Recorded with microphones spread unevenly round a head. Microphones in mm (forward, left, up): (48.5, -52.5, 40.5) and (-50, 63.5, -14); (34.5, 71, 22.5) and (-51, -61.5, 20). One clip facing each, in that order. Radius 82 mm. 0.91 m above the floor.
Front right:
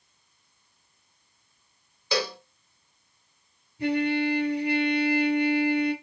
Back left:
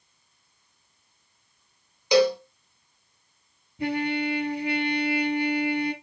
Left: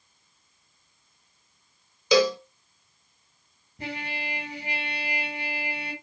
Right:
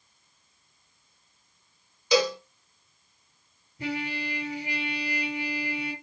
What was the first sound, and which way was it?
A cowbell, 65° left.